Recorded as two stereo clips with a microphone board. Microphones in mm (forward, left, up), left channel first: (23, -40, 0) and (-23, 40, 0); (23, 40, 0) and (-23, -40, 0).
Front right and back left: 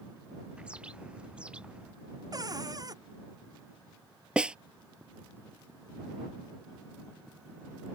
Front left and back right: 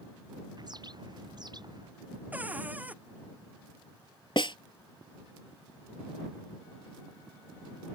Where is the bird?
160° right.